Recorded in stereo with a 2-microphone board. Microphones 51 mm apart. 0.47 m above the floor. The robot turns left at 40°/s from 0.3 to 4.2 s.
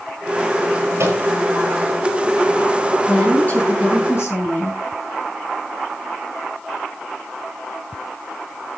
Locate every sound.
1.0 s a microwave: 70° right (ahead or behind), 9.5 m; by 1.2 s 75° right (ahead or behind), 9.5 m
3.1 s a woman speaking: 165° left, 6 m; by 4.8 s 120° left, 6 m